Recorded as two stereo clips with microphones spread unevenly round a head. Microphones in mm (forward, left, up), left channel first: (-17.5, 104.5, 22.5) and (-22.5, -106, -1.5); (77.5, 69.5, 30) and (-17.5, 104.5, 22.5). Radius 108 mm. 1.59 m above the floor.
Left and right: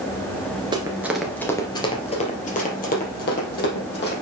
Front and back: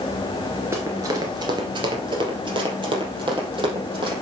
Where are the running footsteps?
145° right, 1.6 m; by 4.1 s 125° left, 4.5 m.